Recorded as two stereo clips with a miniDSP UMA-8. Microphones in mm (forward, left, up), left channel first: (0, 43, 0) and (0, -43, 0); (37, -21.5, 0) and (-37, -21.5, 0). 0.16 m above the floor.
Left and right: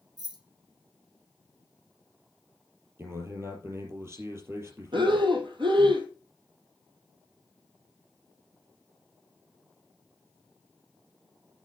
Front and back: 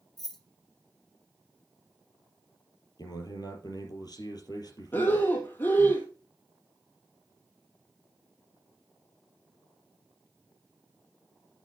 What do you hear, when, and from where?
0.2 s keys jangling: 85° right, 1.3 m
3.0 s a man speaking: 35° right, 4 m
4.9 s breathing: 65° right, 1.5 m